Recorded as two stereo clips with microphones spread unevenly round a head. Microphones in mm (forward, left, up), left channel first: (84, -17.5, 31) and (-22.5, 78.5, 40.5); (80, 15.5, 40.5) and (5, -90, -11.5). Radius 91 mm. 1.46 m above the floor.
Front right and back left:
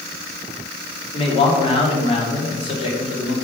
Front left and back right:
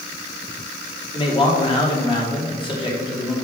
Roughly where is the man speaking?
Ahead.